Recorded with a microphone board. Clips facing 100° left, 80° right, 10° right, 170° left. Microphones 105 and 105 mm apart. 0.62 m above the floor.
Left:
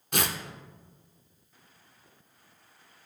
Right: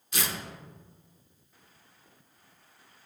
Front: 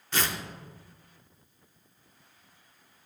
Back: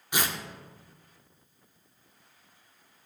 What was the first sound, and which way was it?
Tearing paper, 95° left.